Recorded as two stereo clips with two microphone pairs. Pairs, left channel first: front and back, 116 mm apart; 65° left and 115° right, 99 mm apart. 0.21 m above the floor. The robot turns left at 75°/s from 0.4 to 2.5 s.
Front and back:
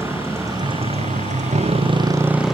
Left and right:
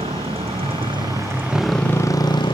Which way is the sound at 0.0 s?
110° right.